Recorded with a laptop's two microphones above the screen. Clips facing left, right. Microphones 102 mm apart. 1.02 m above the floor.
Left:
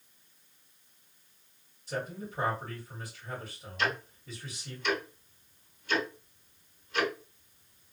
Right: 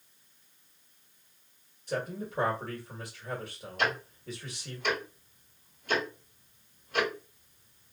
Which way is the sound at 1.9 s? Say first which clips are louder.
Right 3 dB; 55° right (ahead or behind).